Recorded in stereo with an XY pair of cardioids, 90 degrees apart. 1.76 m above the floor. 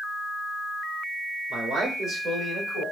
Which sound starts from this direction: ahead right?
A man speaking, at 1.5 s.